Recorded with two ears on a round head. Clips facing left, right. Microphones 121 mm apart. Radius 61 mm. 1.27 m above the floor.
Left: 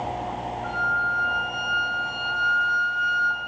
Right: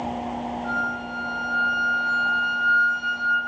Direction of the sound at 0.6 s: 20° right (ahead or behind).